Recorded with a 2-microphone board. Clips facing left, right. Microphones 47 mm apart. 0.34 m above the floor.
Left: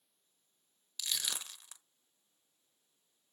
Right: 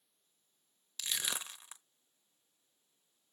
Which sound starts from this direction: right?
Crushing, at 1.0 s.